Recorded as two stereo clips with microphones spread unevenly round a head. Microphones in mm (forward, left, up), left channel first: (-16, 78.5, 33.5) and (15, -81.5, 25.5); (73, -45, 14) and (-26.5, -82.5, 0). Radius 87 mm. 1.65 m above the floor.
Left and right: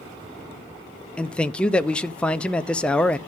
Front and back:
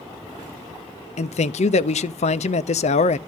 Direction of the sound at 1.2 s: 20° left.